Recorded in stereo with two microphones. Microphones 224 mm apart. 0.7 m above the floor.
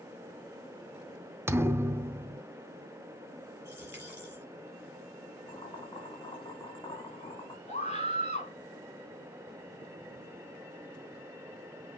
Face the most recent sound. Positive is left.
turn(degrees=30)  # may be behind; listen again after turning